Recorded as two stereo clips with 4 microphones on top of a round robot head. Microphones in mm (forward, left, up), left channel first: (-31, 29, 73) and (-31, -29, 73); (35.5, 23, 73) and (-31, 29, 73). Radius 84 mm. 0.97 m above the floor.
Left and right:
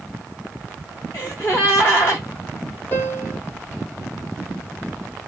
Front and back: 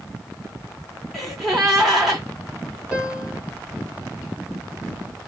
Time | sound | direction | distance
1.1 | a gasp | 85° left | 0.6 m
2.9 | a piano | 105° left | 0.6 m